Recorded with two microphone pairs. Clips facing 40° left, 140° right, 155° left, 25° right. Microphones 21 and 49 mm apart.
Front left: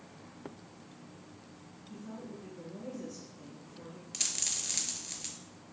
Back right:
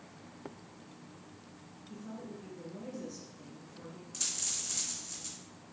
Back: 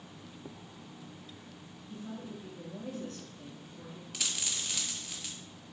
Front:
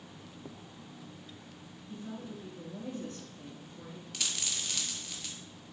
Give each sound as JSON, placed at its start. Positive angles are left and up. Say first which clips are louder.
{"t": 1.9, "sound": "a woman speaking", "louder": "even, even", "azimuth_deg": -65, "distance_m": 1.6}
{"t": 4.1, "sound": "a dropped coin", "louder": "front left 2 dB, even", "azimuth_deg": 75, "distance_m": 0.7}